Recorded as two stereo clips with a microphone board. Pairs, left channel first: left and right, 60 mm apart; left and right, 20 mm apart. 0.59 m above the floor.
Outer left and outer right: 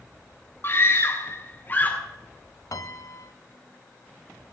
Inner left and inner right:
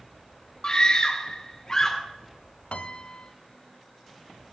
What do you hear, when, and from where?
0.6 s a scream: 35° left (ahead or behind), 1.4 m; by 2.0 s 30° left (ahead or behind), 2 m
2.7 s a piano: 70° left (ahead or behind), 0.7 m